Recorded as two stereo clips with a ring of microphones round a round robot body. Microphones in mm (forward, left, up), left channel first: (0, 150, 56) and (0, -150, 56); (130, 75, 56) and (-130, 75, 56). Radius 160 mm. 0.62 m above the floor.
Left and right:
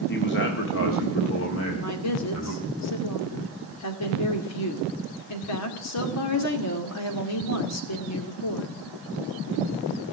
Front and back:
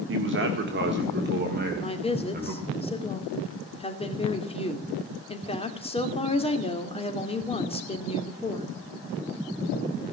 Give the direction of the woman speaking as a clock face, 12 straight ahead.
10 o'clock.